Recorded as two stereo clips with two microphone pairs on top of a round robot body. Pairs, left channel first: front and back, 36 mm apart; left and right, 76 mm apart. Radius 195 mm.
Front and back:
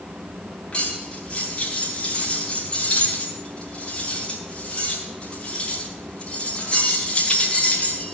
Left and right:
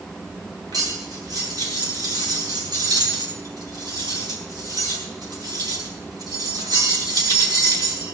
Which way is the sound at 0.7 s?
65° right.